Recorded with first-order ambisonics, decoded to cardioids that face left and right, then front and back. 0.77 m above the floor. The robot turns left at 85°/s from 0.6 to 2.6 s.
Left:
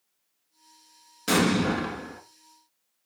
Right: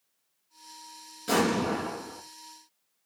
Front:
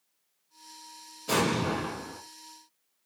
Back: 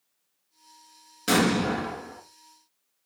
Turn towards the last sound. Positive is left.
turn(degrees=35)